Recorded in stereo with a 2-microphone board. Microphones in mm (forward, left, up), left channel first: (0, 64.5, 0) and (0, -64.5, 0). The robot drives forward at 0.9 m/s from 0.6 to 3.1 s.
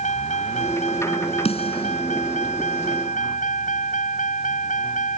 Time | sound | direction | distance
0.0 | a vehicle | 70° left (ahead or behind) | ?
1.4 | a snare drum | 50° left (ahead or behind) | ?